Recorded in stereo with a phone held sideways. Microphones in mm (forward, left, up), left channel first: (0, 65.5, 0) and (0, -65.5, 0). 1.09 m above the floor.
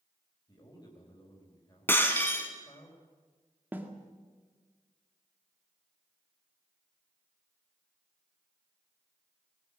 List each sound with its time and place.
0.5 s a man speaking: 30° left (ahead or behind), 4 m
1.9 s breaking glass: 15° left (ahead or behind), 2.5 m
3.7 s a snare drum: 15° right (ahead or behind), 1.9 m